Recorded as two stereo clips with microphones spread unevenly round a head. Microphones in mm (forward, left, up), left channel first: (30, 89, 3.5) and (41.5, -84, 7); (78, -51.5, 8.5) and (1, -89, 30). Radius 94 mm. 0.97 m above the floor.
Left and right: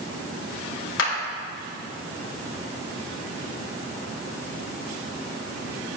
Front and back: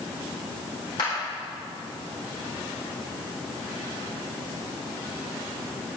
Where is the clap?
85° left, 3.5 m.